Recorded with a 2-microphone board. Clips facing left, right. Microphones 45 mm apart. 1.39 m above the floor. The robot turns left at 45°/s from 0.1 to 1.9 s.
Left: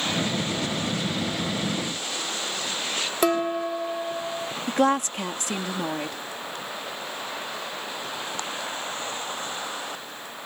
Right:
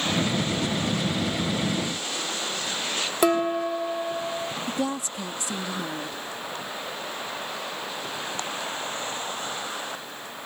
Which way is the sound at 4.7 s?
65° left (ahead or behind).